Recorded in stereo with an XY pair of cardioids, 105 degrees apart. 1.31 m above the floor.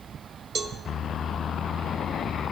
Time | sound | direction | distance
0.6 | a cowbell | 40° right | 1.0 m